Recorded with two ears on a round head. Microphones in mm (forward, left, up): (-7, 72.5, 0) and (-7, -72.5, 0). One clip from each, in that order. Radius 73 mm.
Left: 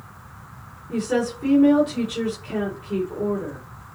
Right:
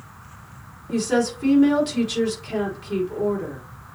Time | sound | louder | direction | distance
0.9 | a woman speaking | right 2 dB | 75° right (ahead or behind) | 4 m